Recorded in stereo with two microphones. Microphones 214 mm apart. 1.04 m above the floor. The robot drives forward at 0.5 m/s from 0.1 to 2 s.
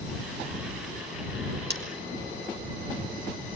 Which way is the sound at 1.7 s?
55° right (ahead or behind).